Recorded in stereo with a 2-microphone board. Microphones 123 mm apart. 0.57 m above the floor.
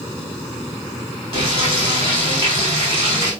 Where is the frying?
45° right (ahead or behind), 6.5 m.